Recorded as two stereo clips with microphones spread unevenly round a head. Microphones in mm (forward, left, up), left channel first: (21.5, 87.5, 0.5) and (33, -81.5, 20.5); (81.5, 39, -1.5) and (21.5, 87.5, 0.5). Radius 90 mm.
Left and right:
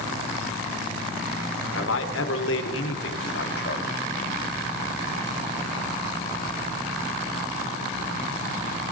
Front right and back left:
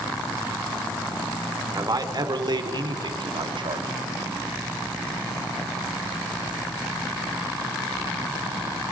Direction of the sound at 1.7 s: 105° left.